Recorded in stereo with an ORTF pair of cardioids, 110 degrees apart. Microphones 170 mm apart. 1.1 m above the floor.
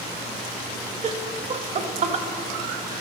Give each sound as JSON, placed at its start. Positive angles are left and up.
{"t": 1.0, "sound": "laughter", "azimuth_deg": -40, "distance_m": 1.3}